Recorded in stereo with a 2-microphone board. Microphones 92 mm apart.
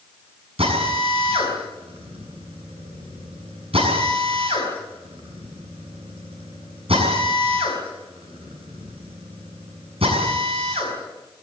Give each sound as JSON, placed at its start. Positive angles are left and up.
{"t": 0.6, "sound": "a drill", "side_deg": -80, "distance_m": 6.5}